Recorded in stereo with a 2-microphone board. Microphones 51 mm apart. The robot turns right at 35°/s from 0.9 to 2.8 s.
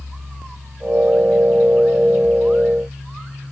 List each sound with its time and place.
Only background noise.